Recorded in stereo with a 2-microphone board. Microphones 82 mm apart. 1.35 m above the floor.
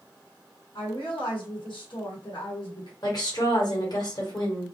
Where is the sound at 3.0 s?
55° left (ahead or behind), 1.3 m.